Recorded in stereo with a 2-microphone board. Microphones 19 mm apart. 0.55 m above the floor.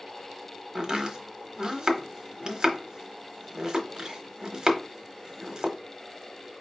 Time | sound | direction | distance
0.8 | chopping | 30° right (ahead or behind) | 1.0 m